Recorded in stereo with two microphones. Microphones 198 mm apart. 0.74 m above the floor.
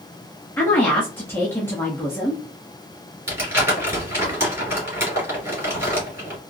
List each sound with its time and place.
0.6 s a woman speaking: 10° left (ahead or behind), 1.0 m
3.3 s crumpling: 15° right (ahead or behind), 2.5 m